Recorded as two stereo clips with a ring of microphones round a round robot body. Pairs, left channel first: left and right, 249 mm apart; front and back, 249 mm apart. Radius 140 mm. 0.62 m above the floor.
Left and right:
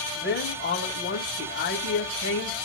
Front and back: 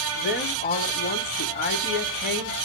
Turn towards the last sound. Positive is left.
turn(degrees=45)